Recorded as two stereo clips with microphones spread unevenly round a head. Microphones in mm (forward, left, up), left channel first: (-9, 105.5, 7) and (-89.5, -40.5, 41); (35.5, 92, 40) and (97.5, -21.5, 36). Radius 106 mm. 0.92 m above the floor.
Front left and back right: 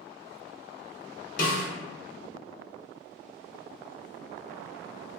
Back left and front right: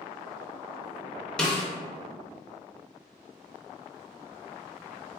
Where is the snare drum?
40° left, 0.7 m.